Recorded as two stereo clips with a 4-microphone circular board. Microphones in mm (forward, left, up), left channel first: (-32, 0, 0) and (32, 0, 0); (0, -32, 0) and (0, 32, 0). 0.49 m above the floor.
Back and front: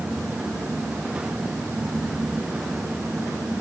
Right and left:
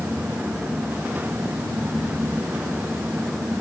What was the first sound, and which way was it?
Only background noise.